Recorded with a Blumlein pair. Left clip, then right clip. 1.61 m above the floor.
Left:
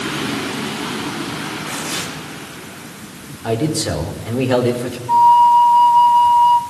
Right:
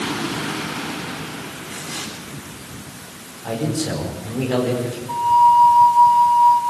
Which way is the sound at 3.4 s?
65° left.